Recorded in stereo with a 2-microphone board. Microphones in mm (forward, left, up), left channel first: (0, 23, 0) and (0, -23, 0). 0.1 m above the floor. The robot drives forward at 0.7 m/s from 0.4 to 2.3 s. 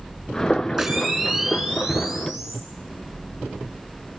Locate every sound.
0.8 s a camera shutter: 15° right (ahead or behind), 6.5 m